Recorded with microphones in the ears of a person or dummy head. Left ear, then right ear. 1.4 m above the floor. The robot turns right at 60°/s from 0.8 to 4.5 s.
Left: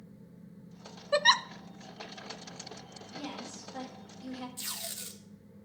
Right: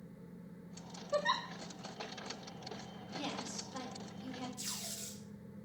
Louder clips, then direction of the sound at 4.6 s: Left 4 dB; 35° left (ahead or behind).